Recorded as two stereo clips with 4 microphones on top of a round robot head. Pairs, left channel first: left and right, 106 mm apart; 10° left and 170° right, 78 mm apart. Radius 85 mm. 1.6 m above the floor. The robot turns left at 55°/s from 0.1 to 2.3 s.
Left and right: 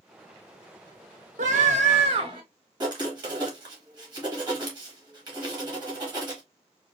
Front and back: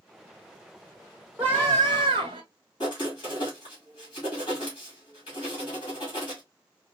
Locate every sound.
1.4 s a scream: 95° right, 1.0 m; by 2.4 s 145° right, 1.0 m
2.8 s writing: 40° right, 1.9 m